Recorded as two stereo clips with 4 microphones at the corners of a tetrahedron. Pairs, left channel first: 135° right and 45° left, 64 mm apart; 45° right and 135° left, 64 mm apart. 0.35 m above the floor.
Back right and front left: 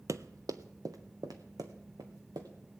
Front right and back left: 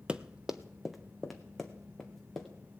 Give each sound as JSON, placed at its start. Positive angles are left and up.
{"t": 0.1, "sound": "running footsteps", "azimuth_deg": 60, "distance_m": 0.6}